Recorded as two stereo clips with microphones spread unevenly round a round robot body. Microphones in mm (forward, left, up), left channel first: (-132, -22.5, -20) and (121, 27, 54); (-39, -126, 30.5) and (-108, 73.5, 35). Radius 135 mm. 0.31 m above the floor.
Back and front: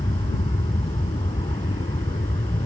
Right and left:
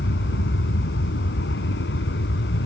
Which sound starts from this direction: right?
An aircraft, at 0.0 s.